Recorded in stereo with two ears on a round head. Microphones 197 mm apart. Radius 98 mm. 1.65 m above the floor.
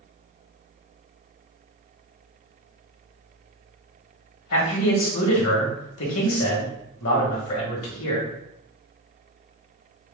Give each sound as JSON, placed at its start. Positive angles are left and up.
{"t": 4.5, "sound": "a man speaking", "side_deg": 70, "distance_m": 1.5}